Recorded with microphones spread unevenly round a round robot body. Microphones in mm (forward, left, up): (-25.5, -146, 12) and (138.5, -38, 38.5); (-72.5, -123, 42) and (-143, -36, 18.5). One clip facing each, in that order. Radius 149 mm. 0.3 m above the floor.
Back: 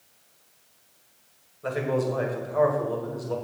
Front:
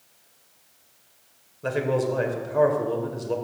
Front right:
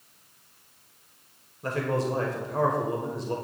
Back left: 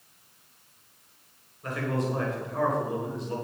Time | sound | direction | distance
1.6 | a man speaking | 10° right | 1.6 m